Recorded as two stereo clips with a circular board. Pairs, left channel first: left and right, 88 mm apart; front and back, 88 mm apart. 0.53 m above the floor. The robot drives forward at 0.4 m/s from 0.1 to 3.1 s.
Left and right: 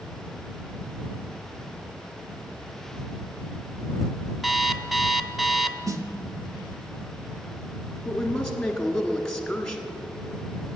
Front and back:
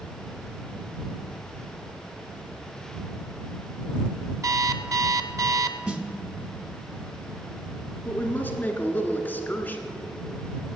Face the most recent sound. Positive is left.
turn(degrees=15)